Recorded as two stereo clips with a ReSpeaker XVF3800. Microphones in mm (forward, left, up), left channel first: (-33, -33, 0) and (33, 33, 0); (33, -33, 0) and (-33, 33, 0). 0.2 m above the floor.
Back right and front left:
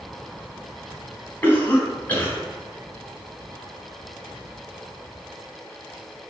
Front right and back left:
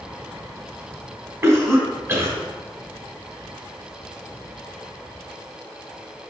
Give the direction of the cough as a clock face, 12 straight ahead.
6 o'clock.